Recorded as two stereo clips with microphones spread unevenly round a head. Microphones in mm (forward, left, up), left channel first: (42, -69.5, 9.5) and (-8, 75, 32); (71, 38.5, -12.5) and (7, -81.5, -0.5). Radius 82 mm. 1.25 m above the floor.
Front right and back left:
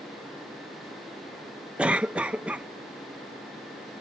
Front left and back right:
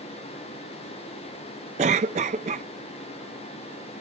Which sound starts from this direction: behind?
A cough, at 1.8 s.